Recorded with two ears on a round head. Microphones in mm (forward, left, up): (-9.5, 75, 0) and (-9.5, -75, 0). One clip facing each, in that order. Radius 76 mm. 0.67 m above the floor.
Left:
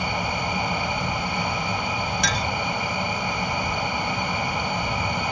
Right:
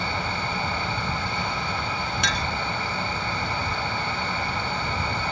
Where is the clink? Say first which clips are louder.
Left 2 dB; 30° left (ahead or behind).